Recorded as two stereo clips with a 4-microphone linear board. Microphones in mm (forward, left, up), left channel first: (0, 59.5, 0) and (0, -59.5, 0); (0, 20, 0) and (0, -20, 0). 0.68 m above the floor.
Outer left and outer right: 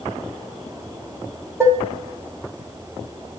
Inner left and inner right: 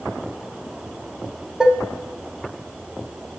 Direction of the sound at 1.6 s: 20° right (ahead or behind).